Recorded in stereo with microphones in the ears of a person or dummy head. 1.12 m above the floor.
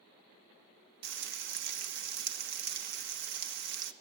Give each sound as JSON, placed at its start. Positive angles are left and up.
{"t": 1.0, "sound": "frying", "side_deg": -60, "distance_m": 0.8}